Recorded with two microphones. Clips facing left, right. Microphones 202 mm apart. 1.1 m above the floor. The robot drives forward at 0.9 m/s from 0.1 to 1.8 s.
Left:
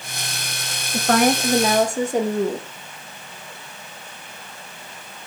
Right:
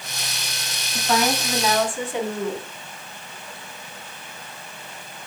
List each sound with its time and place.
0.9 s a woman speaking: 65° left (ahead or behind), 1.0 m; by 2.7 s 40° left (ahead or behind), 1.3 m